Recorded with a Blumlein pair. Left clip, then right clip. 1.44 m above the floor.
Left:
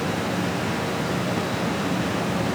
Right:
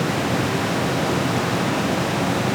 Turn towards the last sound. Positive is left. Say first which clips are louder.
# right 4 dB
turn(degrees=-20)